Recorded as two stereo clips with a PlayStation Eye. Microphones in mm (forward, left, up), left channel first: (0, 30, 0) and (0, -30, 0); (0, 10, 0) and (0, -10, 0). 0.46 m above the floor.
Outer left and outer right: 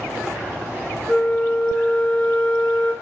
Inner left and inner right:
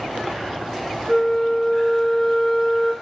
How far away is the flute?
About 1.0 m.